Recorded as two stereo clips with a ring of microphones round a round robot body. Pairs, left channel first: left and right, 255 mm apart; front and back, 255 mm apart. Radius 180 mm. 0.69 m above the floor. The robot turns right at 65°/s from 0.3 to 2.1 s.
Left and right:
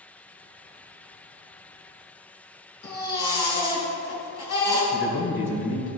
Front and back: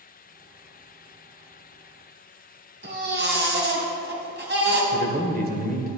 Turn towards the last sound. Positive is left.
turn(degrees=125)